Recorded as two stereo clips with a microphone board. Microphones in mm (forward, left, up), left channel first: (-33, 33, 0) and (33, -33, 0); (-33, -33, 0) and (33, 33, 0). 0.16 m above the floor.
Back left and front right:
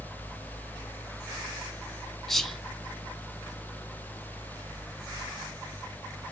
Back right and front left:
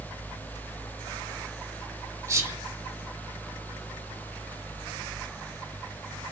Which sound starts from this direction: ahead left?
Whispering, at 2.3 s.